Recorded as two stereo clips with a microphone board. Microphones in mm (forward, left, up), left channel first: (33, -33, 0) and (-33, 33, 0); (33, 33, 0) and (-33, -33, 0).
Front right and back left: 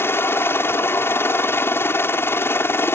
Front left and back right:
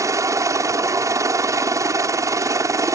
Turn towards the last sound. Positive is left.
turn(degrees=-100)